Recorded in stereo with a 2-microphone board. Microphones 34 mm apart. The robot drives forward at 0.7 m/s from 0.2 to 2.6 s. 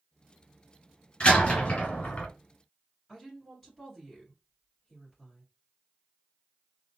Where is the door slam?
30° left (ahead or behind), 1.7 m; by 2.3 s 40° left (ahead or behind), 1.3 m.